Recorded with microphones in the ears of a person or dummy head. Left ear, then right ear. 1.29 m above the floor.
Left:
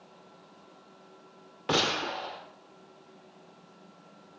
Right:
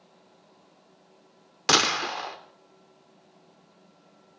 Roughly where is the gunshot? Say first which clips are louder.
Right 5 dB; right.